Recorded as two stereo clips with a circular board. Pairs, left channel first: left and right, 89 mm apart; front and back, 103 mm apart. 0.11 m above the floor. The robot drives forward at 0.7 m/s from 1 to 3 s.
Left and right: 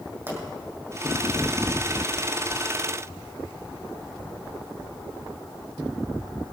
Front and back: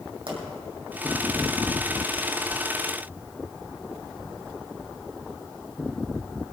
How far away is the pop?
About 4.5 m.